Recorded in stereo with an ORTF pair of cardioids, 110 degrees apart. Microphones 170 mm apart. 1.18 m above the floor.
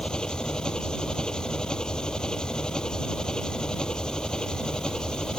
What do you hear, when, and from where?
0.0 s an engine running: 5° left